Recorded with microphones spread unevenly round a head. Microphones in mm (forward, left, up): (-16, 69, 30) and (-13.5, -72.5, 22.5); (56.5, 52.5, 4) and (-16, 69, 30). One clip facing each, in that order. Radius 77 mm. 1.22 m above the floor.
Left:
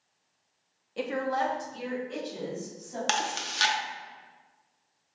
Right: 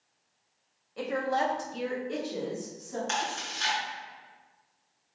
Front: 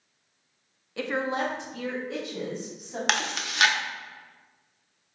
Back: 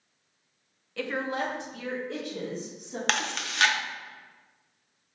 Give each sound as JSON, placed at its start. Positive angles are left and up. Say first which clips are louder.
{"t": 1.0, "sound": "a woman speaking", "louder": "even, front 2 dB", "azimuth_deg": 35, "distance_m": 0.5}
{"t": 3.1, "sound": "chewing", "louder": "left 2 dB, front 1 dB", "azimuth_deg": 65, "distance_m": 0.6}